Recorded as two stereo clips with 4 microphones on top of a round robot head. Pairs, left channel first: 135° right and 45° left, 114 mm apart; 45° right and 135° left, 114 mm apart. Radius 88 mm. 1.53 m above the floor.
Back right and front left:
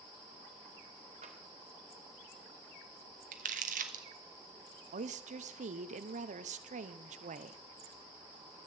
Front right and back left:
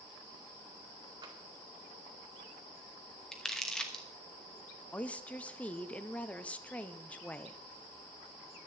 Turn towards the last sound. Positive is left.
turn(degrees=30)